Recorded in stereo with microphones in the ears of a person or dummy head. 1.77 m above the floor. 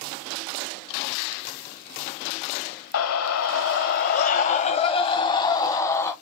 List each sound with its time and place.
2.9 s a scream: 85° left, 1.1 m; by 6.1 s 15° left (ahead or behind), 1.8 m